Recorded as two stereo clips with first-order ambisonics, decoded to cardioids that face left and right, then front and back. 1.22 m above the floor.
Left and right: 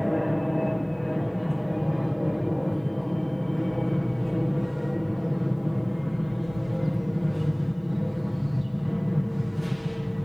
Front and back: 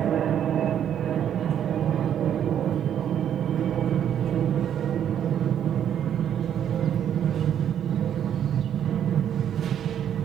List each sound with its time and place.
0.0 s an aircraft: straight behind